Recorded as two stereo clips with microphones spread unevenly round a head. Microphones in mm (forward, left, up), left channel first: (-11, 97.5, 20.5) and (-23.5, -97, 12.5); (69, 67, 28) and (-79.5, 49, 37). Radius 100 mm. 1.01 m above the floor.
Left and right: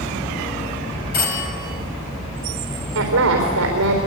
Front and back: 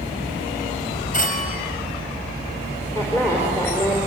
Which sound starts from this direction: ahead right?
A woman speaking, at 3.0 s.